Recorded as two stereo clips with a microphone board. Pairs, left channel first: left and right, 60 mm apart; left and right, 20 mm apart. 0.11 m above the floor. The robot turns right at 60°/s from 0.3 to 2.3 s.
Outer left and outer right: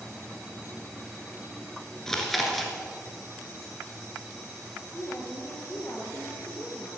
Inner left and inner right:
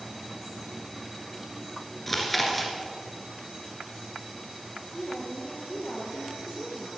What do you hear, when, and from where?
2.1 s chewing: 10° left (ahead or behind), 1.6 m; by 2.7 s centre (ahead or behind), 1.6 m
4.9 s a woman speaking: 35° left (ahead or behind), 2.5 m